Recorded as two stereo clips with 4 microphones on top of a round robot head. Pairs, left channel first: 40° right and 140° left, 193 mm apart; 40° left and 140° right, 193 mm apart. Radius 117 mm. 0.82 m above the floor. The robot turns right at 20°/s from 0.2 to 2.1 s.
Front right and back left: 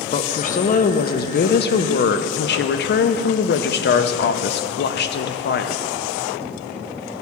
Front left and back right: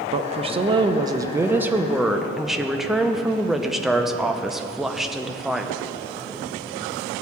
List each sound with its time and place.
0.1 s a woman speaking: 90° right, 0.6 m; by 5.8 s 50° right, 0.6 m